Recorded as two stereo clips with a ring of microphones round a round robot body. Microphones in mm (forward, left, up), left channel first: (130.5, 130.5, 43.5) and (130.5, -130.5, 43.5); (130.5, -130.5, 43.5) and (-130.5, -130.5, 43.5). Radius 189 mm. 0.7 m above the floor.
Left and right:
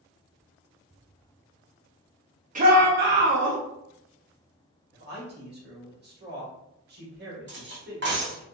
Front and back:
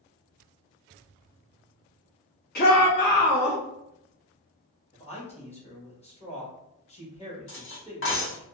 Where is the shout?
40° right, 0.7 m; by 3.6 s 55° right, 1.6 m.